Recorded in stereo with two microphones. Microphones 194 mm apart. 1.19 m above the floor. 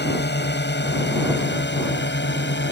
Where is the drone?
65° left (ahead or behind); by 2.7 s 70° left (ahead or behind).